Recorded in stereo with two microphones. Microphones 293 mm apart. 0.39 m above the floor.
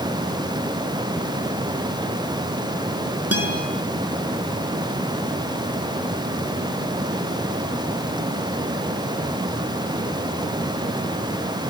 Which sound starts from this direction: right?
A guitar, at 3.3 s.